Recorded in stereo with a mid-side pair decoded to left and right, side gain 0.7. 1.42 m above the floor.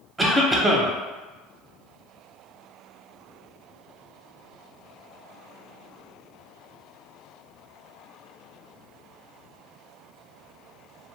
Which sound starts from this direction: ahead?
A cough, at 0.2 s.